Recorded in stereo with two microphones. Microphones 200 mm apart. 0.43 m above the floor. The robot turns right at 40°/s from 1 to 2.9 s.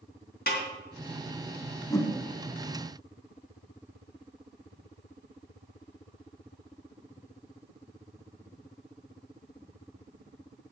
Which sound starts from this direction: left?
A snare drum, at 0.5 s.